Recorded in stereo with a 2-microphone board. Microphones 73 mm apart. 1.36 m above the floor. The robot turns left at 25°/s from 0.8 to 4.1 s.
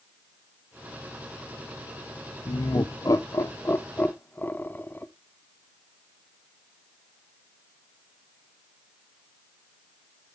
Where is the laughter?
65° left (ahead or behind), 0.8 m; by 5.1 s 25° left (ahead or behind), 0.8 m.